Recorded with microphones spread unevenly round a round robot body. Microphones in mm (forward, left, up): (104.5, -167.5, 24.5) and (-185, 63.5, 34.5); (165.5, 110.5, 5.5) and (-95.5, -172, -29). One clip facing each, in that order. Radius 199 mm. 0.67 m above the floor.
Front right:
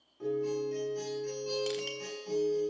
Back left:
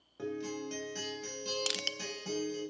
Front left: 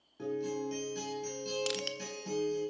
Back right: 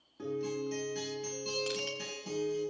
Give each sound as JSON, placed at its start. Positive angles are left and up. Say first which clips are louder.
{"t": 0.2, "sound": "a guitar", "louder": "front right 6 dB, even", "azimuth_deg": 135, "distance_m": 5.5}
{"t": 1.7, "sound": "crushing", "louder": "front right 7 dB, even", "azimuth_deg": 110, "distance_m": 0.5}